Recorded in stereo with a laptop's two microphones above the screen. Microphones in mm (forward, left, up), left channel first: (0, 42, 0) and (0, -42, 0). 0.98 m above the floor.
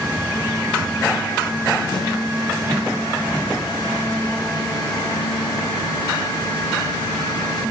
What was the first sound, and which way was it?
A snare drum, 60° left (ahead or behind).